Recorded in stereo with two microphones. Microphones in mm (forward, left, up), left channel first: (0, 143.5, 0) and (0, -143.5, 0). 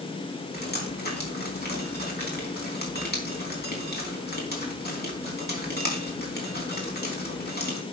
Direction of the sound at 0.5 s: 30° left (ahead or behind).